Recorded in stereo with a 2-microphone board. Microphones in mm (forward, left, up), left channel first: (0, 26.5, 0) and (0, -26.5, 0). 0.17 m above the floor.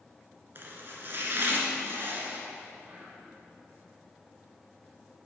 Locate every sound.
0.6 s chopping: 45° right (ahead or behind), 1.0 m
2.8 s whispering: 30° right (ahead or behind), 1.2 m